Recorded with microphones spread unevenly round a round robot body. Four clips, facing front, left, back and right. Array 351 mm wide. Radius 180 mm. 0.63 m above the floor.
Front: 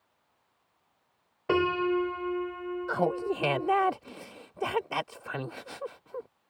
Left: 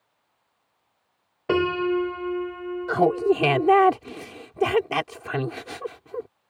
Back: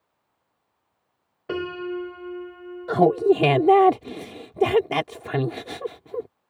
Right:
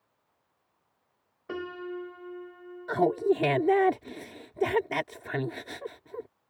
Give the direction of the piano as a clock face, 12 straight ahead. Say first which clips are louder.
Left 14 dB, front 3 dB; 9 o'clock.